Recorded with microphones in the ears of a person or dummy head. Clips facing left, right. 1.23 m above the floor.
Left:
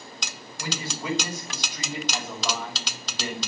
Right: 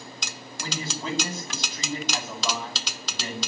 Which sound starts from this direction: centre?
A man speaking, at 0.6 s.